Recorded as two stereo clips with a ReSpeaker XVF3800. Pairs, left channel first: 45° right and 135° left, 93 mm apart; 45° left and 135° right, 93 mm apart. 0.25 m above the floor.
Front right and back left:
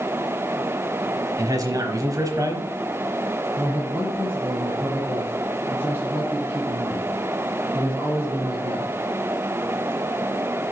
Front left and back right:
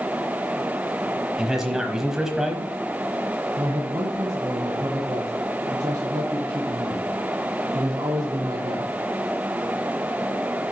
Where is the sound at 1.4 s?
145° left, 1.1 m.